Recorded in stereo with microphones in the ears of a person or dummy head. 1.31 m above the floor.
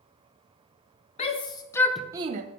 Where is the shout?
35° left (ahead or behind), 1.2 m; by 2.4 s 45° right (ahead or behind), 0.6 m.